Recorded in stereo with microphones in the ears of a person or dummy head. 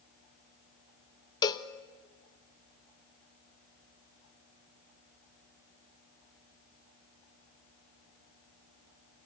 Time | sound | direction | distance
1.4 | a cowbell | 20° left (ahead or behind) | 1.1 m